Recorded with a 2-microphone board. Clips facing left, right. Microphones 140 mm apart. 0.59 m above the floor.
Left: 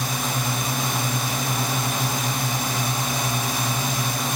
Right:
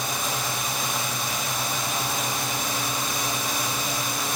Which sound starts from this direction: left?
A drone, at 0.0 s.